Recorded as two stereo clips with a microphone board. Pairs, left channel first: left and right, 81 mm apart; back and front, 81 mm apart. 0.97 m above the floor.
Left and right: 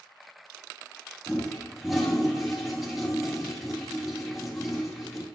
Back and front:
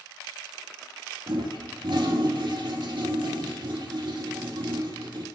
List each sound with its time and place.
1.3 s a toilet flushing: straight ahead, 1.9 m